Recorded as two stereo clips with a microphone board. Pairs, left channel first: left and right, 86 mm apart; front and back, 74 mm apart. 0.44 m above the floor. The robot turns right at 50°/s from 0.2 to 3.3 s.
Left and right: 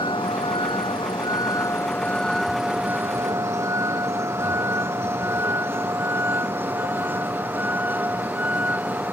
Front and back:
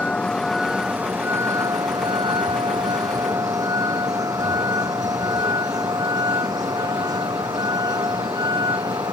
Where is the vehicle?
75° left; by 9.1 s 160° right.